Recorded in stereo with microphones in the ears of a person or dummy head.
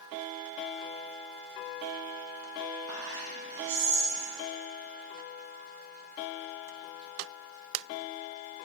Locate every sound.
2.9 s whispering: 75° right (ahead or behind), 2.5 m